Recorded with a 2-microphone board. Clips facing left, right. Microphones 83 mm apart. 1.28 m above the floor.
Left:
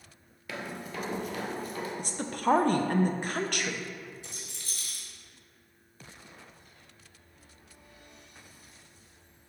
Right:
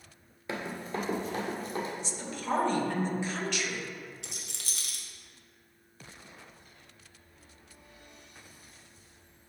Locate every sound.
0.5 s running footsteps: 25° right (ahead or behind), 1.4 m; by 1.9 s 30° right (ahead or behind), 2.0 m
2.0 s a woman speaking: 50° left (ahead or behind), 0.6 m
4.2 s a rattle: 75° right (ahead or behind), 0.9 m